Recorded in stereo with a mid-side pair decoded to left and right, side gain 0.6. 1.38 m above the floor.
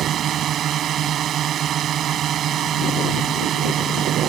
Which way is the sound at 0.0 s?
50° right.